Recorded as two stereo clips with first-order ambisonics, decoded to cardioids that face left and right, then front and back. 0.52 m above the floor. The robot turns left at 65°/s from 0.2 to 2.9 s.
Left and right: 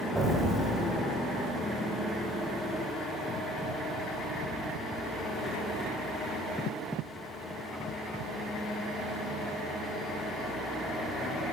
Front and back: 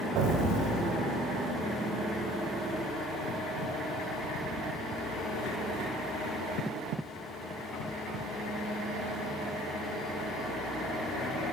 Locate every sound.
0.1 s an explosion: 175° right, 1.6 m; by 0.9 s 135° left, 1.6 m